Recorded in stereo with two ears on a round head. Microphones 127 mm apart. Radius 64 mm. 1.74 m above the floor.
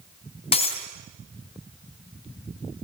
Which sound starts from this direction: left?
Breaking glass, at 0.5 s.